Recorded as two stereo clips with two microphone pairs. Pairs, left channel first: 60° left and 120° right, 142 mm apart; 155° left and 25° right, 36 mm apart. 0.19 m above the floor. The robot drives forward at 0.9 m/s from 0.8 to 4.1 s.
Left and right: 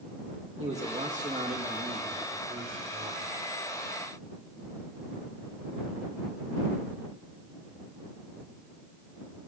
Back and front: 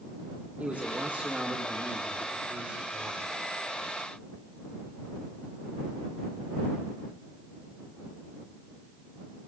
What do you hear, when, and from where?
0.6 s a man speaking: 80° right, 8 m; by 3.4 s 100° right, 8 m